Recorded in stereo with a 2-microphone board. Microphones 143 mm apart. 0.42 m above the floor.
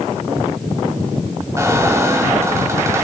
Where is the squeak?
20° right (ahead or behind), 1.3 m.